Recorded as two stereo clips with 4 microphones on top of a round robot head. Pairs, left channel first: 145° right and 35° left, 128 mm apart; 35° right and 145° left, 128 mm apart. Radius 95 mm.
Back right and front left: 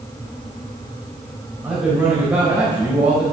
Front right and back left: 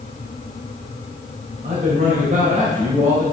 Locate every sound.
1.6 s a man speaking: 115° left, 3 m